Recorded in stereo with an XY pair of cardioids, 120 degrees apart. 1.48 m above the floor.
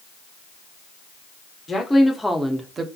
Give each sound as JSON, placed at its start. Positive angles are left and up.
{"t": 1.7, "sound": "a woman speaking", "azimuth_deg": 20, "distance_m": 0.7}